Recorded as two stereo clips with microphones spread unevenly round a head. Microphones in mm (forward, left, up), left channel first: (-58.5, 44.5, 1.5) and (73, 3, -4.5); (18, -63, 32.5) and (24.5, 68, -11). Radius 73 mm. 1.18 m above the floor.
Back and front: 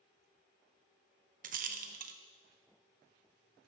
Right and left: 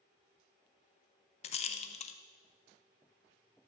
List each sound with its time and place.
1.4 s a rattle: 55° right, 0.5 m